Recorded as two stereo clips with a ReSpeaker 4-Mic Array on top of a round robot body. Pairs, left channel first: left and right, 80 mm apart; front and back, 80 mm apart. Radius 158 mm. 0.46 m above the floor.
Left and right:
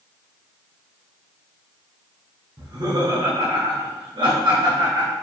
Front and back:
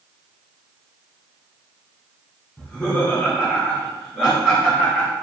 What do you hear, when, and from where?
2.6 s laughter: 85° right, 2.5 m; by 5.1 s 95° right, 3.5 m